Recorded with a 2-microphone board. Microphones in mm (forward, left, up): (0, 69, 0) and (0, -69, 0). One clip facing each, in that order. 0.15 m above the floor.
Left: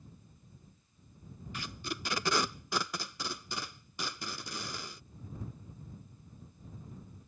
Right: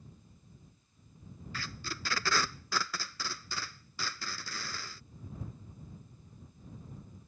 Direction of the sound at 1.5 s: 20° left (ahead or behind).